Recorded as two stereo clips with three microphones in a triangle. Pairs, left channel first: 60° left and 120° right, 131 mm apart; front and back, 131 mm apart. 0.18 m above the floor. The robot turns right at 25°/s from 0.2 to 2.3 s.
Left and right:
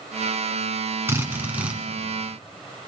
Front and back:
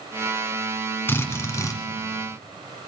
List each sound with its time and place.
1.1 s a drill: 60° right, 1.8 m; by 1.8 s 45° right, 1.8 m